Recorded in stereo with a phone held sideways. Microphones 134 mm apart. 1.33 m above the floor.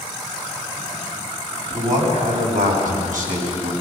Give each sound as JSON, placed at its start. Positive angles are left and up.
{"t": 1.7, "sound": "a man speaking", "side_deg": -70, "distance_m": 9.5}